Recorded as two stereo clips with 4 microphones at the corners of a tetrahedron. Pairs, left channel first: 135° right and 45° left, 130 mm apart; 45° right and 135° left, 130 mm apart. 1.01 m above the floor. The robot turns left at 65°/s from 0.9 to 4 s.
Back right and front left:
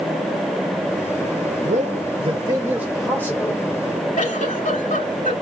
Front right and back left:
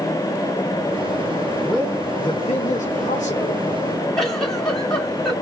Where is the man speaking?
45° left, 1.7 m; by 3.6 s 85° right, 1.7 m.